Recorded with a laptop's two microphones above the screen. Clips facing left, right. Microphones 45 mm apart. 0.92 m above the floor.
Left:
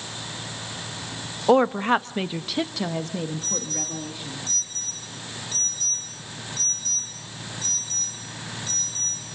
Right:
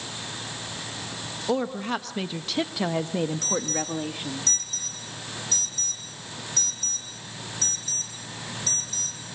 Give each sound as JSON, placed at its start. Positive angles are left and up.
{"t": 1.5, "sound": "a woman speaking", "side_deg": 50, "distance_m": 1.2}
{"t": 3.4, "sound": "an alarm", "side_deg": -65, "distance_m": 8.0}